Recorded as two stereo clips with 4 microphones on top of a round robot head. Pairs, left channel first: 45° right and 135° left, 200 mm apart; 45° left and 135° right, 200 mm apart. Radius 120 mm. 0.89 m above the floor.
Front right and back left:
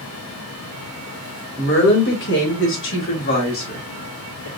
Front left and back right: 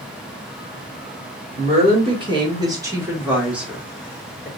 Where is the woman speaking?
75° right, 3 m; by 4.5 s 35° right, 3 m.